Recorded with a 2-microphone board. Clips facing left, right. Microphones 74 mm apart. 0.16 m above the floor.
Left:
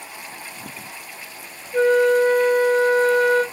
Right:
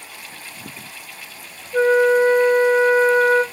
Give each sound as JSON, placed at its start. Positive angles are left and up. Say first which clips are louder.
{"t": 1.7, "sound": "a flute", "louder": "right 1 dB", "side_deg": -30, "distance_m": 0.7}